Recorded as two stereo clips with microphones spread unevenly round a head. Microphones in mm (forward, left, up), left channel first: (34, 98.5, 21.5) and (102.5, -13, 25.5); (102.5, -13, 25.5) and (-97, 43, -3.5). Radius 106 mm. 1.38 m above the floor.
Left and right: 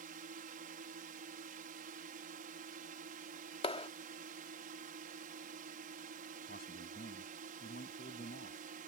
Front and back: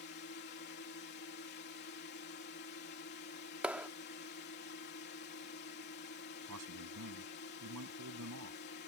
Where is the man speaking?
160° left.